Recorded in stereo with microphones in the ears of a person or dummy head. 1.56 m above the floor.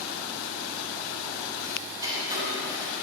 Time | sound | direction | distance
1.6 | ticking | 20° right (ahead or behind) | 2 m